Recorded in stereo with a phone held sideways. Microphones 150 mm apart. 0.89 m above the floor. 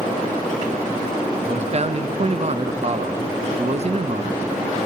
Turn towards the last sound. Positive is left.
turn(degrees=-45)  # may be behind; listen again after turning